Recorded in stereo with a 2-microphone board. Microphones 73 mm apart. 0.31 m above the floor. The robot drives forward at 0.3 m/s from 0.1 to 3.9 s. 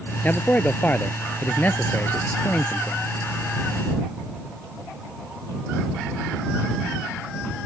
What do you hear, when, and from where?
0.2 s a man speaking: 25° left (ahead or behind); by 3.0 s 30° left (ahead or behind)